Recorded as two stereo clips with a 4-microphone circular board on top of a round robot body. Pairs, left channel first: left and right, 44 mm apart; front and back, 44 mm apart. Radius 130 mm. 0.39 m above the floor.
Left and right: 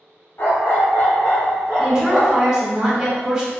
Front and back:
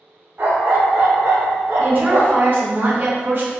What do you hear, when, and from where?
0.4 s a dog barking: 135° left, 1.1 m; by 2.5 s 175° right, 1.4 m
1.8 s a woman speaking: 165° right, 1.5 m